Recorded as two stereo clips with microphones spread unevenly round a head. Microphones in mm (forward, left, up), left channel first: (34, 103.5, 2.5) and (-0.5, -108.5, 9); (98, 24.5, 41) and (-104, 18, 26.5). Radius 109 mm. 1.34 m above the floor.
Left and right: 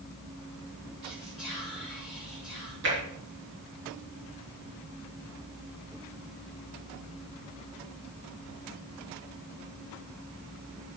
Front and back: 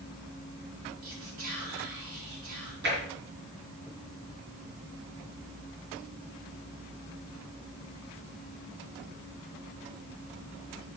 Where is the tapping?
135° right, 4 m.